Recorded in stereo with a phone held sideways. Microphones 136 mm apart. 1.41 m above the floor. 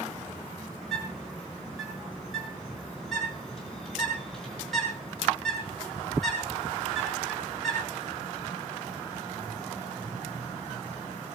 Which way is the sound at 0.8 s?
Centre (ahead or behind).